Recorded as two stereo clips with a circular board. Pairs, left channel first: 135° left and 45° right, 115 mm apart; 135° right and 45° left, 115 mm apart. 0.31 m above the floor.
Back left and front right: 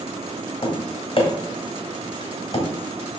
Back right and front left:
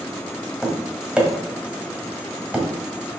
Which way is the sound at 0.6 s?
125° left.